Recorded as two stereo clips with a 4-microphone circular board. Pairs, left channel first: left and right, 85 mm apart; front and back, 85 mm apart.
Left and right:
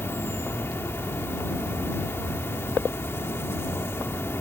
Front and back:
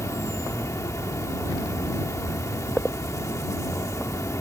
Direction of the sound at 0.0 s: 40° left.